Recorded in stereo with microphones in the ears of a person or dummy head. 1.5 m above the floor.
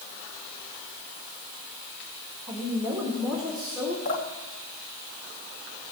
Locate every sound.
2.5 s a woman speaking: 15° right (ahead or behind), 1.9 m; by 4.0 s 5° right (ahead or behind), 3 m
4.0 s dripping: 60° left (ahead or behind), 1.9 m